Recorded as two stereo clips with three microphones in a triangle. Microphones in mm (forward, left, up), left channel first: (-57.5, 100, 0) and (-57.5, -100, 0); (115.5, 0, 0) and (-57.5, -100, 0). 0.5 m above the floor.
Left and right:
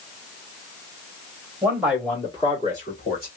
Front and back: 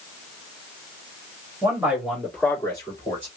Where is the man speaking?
115° right, 1.4 m; by 3.3 s 85° left, 2 m.